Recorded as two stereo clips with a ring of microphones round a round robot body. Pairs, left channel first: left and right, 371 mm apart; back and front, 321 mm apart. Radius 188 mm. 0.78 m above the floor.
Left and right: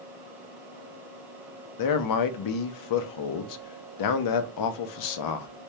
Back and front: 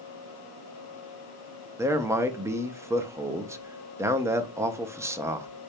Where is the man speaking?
80° left, 0.6 m.